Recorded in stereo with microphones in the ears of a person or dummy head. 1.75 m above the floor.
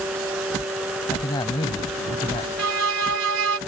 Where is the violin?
85° right.